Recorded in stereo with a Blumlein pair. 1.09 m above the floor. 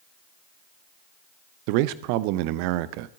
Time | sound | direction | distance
1.7 | a man speaking | 45° right | 0.6 m